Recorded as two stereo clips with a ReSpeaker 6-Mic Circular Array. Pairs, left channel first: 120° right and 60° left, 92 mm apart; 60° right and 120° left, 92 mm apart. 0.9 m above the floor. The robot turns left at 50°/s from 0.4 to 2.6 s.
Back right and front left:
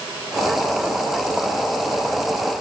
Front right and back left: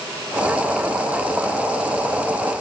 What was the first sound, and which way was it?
Only background noise.